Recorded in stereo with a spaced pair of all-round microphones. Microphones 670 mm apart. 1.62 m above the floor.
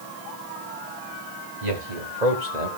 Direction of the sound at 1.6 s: 90° right.